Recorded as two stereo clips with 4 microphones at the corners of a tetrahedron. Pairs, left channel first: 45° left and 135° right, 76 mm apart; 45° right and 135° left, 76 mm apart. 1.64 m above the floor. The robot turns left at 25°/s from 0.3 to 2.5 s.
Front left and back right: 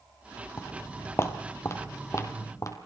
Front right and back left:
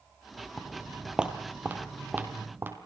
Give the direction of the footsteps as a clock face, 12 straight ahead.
11 o'clock.